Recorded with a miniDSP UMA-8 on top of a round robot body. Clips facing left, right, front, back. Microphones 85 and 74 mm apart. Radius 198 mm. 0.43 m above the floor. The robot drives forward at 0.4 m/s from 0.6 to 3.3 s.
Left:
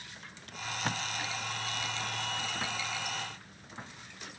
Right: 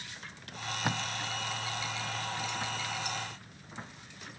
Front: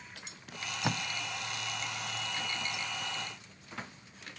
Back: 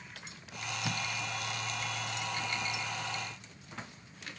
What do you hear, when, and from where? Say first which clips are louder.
0.5 s tape being pulled: right 1 dB, front 2 dB; 15° right, 0.5 m; by 1.0 s 25° right, 0.5 m